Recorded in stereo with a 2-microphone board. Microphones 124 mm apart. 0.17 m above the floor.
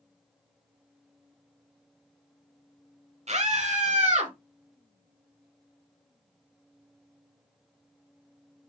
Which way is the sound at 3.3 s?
65° right (ahead or behind).